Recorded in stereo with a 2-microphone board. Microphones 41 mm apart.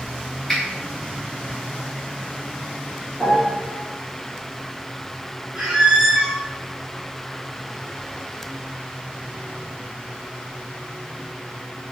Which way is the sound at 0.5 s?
15° left (ahead or behind).